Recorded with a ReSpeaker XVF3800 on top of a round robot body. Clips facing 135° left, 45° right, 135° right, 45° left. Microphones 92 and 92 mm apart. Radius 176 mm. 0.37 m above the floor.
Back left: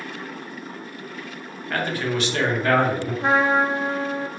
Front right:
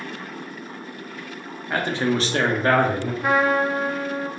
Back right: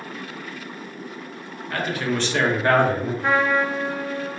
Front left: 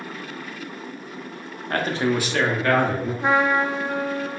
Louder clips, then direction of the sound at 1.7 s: Front right 2 dB, front left 3 dB; 25° left.